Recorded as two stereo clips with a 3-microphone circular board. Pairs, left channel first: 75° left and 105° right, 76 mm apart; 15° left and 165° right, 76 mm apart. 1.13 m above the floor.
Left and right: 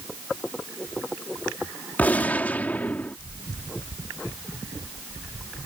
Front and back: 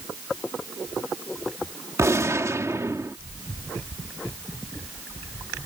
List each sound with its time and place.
2.0 s a gunshot: 145° left